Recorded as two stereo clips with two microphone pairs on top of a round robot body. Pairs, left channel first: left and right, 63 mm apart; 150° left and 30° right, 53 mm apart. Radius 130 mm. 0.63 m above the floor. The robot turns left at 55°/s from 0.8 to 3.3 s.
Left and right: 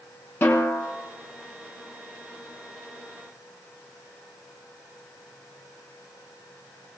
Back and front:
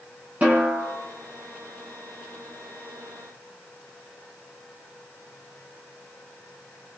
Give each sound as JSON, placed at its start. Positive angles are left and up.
{"t": 0.4, "sound": "a snare drum", "azimuth_deg": 35, "distance_m": 5.0}